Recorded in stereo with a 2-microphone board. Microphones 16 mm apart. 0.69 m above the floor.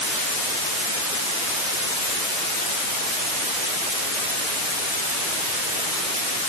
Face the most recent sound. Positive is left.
No sound to turn to.